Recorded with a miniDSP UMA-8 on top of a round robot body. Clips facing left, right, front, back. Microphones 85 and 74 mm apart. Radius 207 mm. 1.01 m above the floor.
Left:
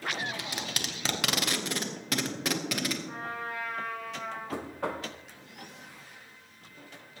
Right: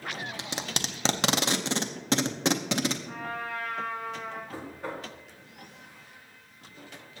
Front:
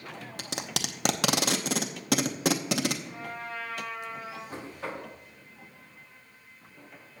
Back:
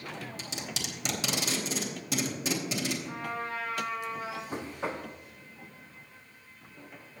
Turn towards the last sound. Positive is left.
turn(degrees=110)